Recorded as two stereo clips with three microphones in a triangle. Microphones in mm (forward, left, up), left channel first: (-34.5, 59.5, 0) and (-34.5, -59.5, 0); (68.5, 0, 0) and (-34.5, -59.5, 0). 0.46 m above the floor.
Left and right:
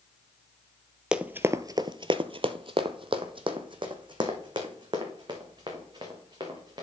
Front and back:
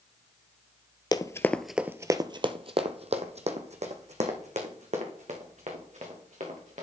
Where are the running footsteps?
15° right, 0.6 m; by 6.8 s 145° right, 3 m.